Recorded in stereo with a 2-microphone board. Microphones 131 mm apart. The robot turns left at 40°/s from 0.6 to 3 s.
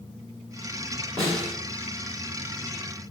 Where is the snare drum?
30° right (ahead or behind), 1.2 m; by 1.5 s 15° right (ahead or behind), 1.2 m.